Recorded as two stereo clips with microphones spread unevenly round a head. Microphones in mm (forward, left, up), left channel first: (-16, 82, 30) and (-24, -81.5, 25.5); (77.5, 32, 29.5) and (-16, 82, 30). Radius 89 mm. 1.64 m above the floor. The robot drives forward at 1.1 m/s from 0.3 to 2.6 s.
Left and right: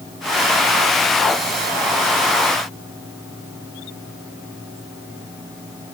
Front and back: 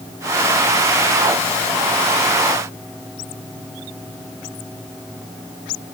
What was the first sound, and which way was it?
Only background noise.